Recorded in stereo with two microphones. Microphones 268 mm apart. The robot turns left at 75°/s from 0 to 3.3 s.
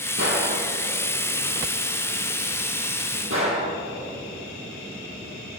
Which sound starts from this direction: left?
A gunshot, at 0.2 s.